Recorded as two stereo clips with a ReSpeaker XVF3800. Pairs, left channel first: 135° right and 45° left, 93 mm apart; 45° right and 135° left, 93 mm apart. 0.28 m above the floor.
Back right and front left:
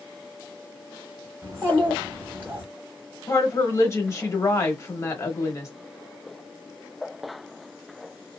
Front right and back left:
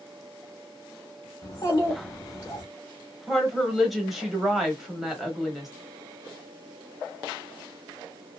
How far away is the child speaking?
About 1.1 m.